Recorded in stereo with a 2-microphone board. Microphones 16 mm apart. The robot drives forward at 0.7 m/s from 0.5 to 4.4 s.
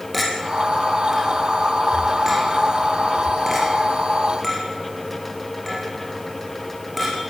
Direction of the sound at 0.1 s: 5° right (ahead or behind).